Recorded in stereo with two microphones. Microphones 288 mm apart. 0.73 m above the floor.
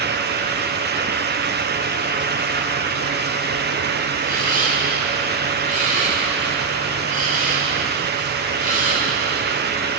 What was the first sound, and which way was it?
A camera shutter, 25° right (ahead or behind).